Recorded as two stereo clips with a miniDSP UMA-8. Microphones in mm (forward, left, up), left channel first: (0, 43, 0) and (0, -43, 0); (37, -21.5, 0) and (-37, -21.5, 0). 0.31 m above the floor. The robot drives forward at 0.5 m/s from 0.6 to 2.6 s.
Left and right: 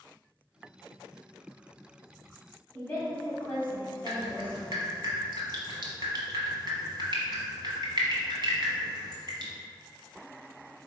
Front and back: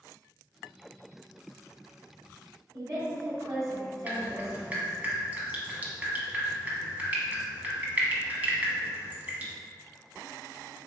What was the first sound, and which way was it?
A woman speaking, 155° left.